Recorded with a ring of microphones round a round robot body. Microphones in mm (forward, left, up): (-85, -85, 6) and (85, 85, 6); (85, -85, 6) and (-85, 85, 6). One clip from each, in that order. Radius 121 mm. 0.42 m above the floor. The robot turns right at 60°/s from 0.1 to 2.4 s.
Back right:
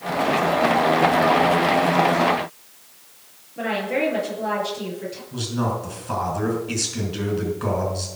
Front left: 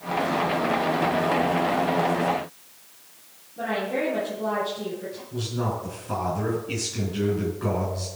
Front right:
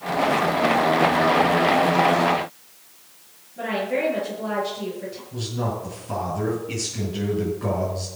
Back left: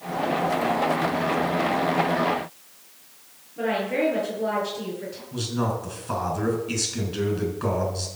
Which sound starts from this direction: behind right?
A woman speaking, at 3.6 s.